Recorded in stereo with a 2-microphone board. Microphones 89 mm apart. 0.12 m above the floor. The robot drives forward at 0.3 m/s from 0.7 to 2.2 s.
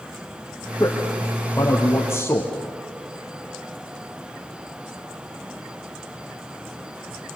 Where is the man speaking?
25° left (ahead or behind), 3 m; by 2.5 s 30° left (ahead or behind), 2.5 m.